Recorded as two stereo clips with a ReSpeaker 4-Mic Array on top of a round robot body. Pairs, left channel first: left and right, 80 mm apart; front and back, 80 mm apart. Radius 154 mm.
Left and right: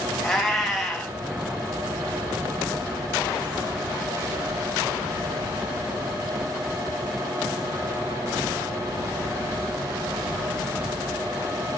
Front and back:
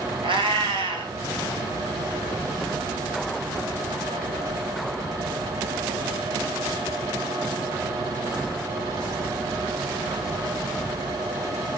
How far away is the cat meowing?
About 2.5 m.